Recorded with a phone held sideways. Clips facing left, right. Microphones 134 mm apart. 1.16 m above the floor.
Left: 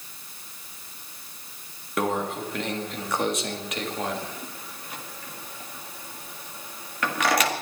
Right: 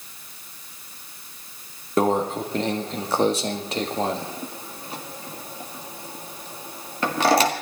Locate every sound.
2.0 s a microwave: 30° right (ahead or behind), 1.7 m